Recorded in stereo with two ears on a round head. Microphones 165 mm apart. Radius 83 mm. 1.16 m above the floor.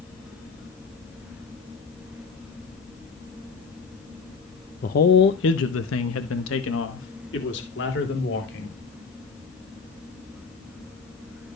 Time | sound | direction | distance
4.8 | a man speaking | 45° left (ahead or behind) | 0.8 m